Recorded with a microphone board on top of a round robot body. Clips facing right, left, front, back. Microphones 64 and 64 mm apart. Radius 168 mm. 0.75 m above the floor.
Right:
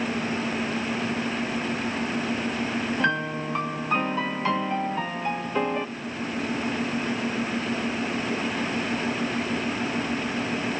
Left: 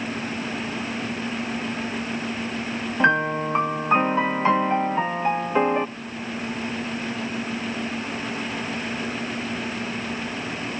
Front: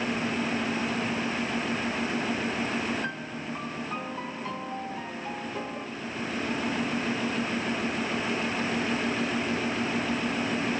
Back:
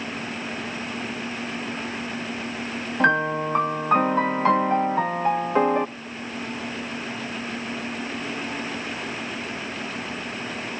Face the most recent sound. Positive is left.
turn(degrees=155)